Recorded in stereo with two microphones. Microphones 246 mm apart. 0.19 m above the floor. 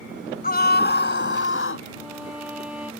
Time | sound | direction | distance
0.4 | a scream | 35° left (ahead or behind) | ?
1.9 | a violin | 5° right (ahead or behind) | ?